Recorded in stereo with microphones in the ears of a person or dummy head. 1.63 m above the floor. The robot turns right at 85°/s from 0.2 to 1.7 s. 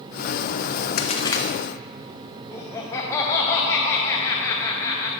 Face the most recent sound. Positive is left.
turn(degrees=20)  # may be behind; listen again after turning